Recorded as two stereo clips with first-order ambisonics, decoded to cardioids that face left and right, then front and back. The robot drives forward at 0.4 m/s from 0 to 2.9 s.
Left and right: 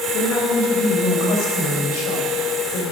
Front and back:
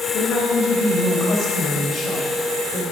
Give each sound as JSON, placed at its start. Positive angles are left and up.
{"t": 0.1, "sound": "a woman speaking", "azimuth_deg": 70, "distance_m": 2.5}